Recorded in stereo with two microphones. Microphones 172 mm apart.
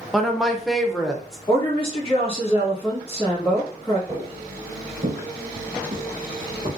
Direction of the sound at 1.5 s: 20° left (ahead or behind).